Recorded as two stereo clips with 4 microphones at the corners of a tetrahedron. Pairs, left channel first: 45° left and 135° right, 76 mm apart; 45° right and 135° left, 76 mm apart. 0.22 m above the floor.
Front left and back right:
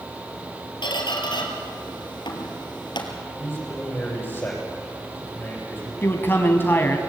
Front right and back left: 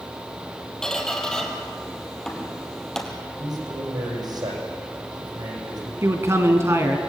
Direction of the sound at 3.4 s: 110° left.